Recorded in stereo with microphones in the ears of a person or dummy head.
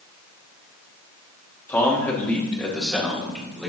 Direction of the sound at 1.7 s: 15° left (ahead or behind).